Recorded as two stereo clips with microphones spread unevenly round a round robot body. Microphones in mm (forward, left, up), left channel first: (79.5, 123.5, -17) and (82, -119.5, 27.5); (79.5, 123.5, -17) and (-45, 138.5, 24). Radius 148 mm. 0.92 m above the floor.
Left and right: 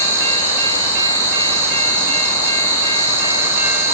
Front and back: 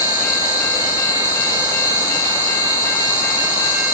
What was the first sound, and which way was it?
An insect, 10° right.